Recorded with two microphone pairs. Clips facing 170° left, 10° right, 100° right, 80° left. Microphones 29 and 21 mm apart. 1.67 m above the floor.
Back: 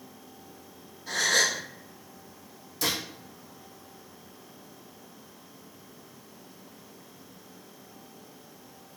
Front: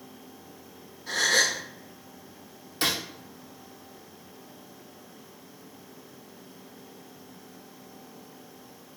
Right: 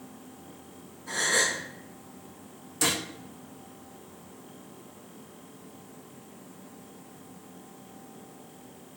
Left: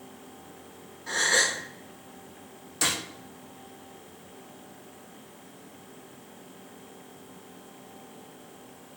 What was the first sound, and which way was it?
A gasp, 75° left.